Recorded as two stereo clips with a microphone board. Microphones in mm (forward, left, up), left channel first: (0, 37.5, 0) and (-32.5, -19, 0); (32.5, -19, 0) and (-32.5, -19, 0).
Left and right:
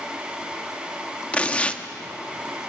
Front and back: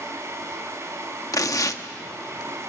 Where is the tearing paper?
5° right, 1.1 m.